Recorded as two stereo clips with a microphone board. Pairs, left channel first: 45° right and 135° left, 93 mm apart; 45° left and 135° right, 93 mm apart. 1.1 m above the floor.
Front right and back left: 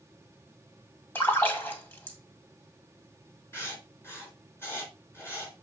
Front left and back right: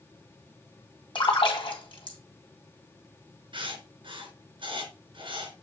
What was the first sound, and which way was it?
A splash, 20° left.